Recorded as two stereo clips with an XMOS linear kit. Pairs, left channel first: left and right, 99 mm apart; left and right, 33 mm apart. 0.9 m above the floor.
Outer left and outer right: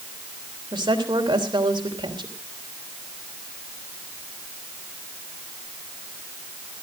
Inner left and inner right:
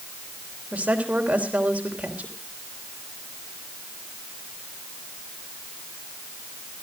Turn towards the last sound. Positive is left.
turn(degrees=-50)  # may be behind; listen again after turning